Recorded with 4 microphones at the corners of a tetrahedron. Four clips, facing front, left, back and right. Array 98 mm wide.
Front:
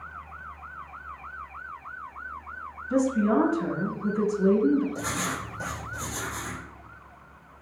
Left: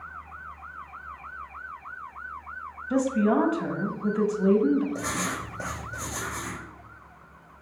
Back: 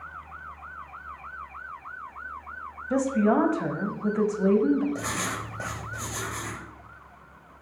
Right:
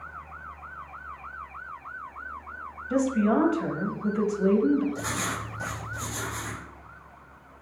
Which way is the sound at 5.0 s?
140° left.